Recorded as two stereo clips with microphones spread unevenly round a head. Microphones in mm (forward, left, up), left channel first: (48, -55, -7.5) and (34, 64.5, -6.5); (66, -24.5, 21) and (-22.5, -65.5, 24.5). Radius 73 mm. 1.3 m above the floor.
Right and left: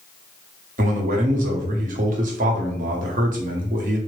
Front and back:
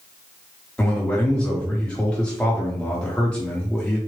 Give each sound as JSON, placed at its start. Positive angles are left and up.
{"t": 0.8, "sound": "a man speaking", "azimuth_deg": 105, "distance_m": 0.9}